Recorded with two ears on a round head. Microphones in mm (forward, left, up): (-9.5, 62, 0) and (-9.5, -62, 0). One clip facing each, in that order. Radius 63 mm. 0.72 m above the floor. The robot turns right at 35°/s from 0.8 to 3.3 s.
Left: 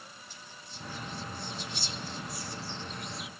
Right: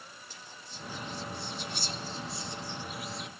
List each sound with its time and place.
0.3 s whispering: 65° right (ahead or behind); by 3.3 s 5° left (ahead or behind)